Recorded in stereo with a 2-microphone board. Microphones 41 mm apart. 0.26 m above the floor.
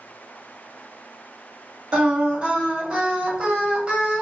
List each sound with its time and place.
1.9 s singing: 25° right (ahead or behind), 1.0 m